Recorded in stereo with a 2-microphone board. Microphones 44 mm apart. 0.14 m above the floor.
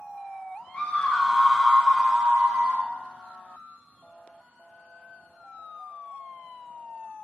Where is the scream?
20° left (ahead or behind), 1.5 m; by 2.9 s 45° right (ahead or behind), 1.8 m.